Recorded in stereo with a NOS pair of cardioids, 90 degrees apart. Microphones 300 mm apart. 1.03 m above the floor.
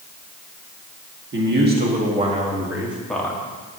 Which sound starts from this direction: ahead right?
A man speaking, at 1.3 s.